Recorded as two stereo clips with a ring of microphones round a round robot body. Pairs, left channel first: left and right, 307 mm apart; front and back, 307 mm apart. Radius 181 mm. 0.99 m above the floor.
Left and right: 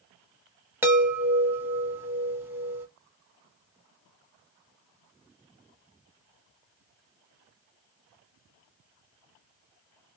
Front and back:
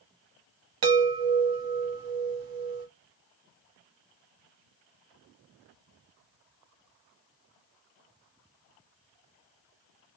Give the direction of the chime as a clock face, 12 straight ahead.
6 o'clock.